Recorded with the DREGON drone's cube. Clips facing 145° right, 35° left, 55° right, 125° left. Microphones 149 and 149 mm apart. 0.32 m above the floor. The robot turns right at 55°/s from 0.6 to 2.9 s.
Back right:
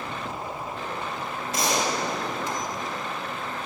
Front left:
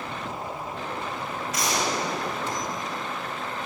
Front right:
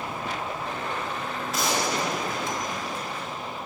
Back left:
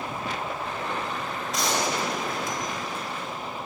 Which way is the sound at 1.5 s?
140° right.